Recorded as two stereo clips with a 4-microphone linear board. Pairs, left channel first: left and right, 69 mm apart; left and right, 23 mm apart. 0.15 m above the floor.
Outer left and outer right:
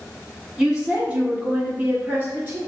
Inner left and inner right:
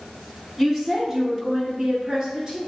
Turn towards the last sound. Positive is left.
turn(degrees=-30)  # may be behind; listen again after turning